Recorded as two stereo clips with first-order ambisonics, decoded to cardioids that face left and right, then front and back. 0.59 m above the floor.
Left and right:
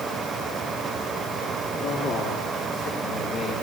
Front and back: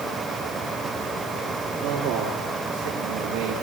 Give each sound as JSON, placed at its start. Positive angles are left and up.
{"t": 1.7, "sound": "a man speaking", "azimuth_deg": 145, "distance_m": 10.0}